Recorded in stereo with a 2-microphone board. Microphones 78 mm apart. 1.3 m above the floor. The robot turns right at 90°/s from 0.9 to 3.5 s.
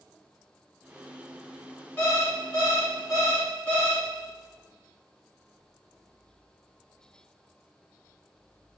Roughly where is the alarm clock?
Ahead left.